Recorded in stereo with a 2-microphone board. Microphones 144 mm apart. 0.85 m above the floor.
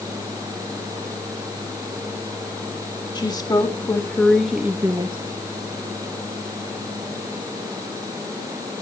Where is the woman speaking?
30° left (ahead or behind), 2 m; by 5.2 s 35° right (ahead or behind), 1.0 m.